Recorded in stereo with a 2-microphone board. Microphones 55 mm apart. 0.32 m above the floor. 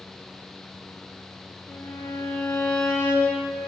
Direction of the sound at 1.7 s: 65° left (ahead or behind).